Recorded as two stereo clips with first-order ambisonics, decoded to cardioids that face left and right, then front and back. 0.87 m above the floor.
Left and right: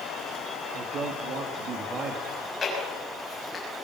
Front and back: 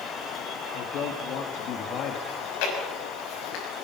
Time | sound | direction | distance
0.7 | a man speaking | 40° right | 1.8 m
2.3 | chewing | 15° left | 6 m